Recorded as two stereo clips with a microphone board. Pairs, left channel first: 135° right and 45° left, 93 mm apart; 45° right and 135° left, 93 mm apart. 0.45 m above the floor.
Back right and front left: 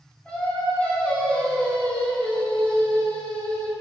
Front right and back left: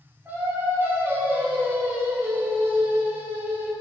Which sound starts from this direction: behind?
Singing, at 0.2 s.